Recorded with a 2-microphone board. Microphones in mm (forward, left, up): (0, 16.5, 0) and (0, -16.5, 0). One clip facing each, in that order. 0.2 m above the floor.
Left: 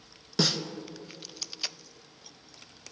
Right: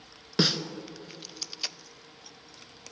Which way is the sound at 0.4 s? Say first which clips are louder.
Right 2 dB; 25° right (ahead or behind).